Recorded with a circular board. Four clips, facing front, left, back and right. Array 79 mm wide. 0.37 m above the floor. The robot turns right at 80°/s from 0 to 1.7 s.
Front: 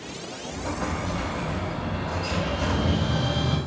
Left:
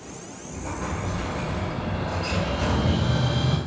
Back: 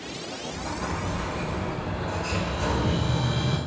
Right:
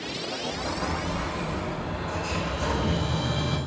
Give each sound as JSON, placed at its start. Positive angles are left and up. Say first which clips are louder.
{"t": 0.5, "sound": "an explosion", "louder": "even, front 2 dB", "azimuth_deg": -45, "distance_m": 2.5}